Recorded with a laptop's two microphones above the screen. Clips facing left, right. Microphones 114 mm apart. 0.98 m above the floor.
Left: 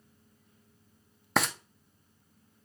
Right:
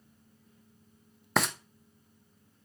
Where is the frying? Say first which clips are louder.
Even; centre (ahead or behind), 0.5 m.